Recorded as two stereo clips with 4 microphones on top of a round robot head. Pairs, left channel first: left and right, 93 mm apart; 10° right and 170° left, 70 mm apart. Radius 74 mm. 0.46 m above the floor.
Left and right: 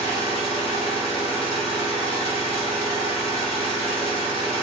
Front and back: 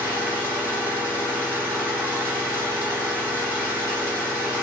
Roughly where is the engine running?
Behind left.